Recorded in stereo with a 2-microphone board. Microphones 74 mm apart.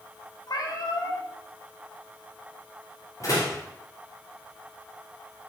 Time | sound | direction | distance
0.5 | a cat meowing | 65° left (ahead or behind) | 1.3 m
3.2 | a door slam | 50° left (ahead or behind) | 2.5 m